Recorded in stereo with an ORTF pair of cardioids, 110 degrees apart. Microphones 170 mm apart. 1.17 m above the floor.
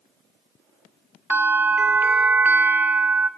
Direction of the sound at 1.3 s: 10° right.